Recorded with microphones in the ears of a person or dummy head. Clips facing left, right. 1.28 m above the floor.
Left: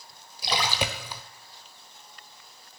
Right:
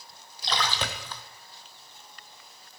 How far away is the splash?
About 1.1 m.